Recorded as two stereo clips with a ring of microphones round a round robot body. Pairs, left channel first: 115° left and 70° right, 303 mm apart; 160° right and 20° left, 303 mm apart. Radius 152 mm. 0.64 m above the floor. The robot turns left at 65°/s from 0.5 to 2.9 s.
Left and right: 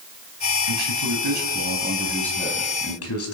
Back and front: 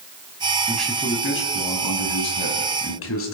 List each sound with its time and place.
0.7 s a man speaking: 60° right, 5 m; by 3.3 s 155° left, 5 m